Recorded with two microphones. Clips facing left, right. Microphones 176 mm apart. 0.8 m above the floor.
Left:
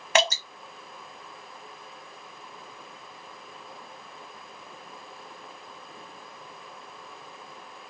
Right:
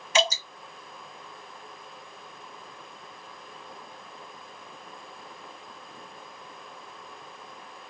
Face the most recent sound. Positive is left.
turn(degrees=65)  # may be behind; listen again after turning